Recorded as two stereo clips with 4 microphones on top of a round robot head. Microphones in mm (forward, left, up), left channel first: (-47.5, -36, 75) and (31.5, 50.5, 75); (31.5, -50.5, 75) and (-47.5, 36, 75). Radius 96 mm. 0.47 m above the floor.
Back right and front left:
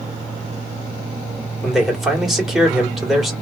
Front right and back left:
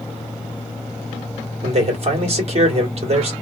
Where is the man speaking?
135° left, 2 m.